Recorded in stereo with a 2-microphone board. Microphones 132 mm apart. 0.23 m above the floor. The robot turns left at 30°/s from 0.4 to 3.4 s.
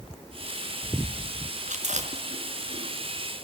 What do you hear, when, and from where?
1.7 s chewing: 65° right (ahead or behind), 2.5 m; by 2.9 s 50° right (ahead or behind), 2.5 m